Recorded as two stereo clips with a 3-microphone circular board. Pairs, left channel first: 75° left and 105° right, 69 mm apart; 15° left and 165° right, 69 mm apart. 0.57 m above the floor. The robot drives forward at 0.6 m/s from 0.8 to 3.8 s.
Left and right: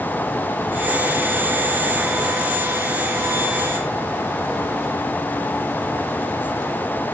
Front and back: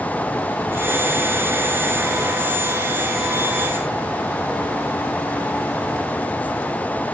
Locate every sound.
Only background noise.